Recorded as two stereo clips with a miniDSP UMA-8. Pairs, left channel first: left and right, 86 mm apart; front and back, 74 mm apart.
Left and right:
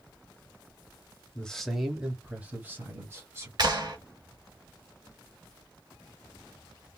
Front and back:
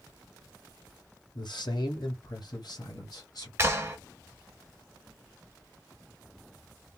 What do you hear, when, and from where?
1.4 s a man speaking: 10° left, 1.0 m; by 3.5 s 30° right, 1.9 m
3.6 s a clap: 125° right, 1.1 m